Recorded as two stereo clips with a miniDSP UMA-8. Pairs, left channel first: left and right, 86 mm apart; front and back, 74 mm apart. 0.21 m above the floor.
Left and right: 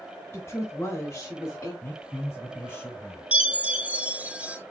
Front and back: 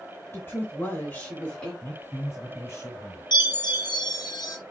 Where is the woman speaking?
45° left, 2 m; by 1.7 s 70° left, 1.8 m.